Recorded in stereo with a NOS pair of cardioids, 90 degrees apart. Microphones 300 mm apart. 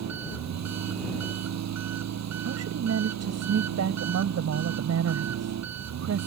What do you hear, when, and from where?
0.0 s an engine running: 60° right
2.5 s a woman speaking: 55° right